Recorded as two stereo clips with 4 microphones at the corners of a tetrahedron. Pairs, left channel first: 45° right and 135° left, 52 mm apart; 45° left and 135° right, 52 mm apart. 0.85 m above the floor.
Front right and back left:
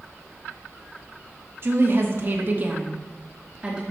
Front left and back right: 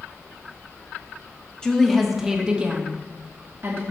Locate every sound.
1.6 s a woman speaking: 120° left, 1.1 m; by 3.8 s 155° right, 1.4 m